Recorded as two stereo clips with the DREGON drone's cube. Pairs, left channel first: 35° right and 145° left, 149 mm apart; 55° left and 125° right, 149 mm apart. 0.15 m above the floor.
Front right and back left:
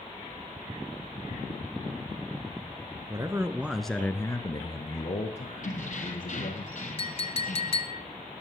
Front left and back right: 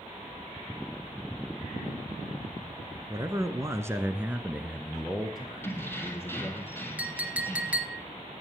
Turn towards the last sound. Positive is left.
turn(degrees=-50)